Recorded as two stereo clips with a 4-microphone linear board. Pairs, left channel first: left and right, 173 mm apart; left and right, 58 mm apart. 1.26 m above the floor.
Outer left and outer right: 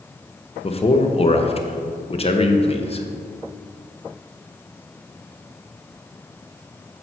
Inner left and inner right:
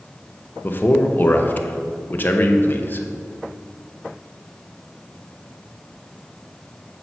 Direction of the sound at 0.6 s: 35° left (ahead or behind).